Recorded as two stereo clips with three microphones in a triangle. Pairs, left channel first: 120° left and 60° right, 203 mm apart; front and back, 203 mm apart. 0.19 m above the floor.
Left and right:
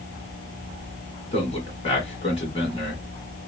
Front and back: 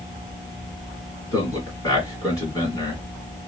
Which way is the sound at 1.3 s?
70° left.